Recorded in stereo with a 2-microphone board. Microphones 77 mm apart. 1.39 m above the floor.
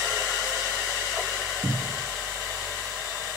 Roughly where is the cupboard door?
Right.